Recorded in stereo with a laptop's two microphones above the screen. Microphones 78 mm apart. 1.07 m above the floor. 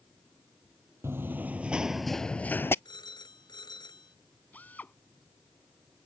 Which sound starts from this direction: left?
A phone ringing, at 2.9 s.